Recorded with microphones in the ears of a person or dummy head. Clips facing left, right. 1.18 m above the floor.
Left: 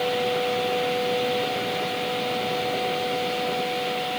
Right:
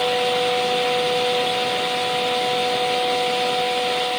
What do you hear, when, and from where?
Only background noise.